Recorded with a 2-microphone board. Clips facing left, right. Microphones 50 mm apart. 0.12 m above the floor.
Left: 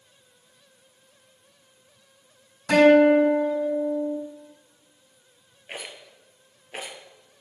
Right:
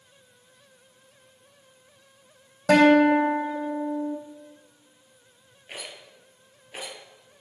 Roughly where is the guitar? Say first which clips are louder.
Left 1 dB; right.